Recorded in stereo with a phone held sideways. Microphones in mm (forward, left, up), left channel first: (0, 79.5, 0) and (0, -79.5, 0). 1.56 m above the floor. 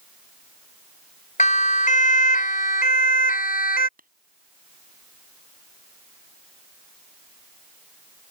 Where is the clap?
60° right (ahead or behind).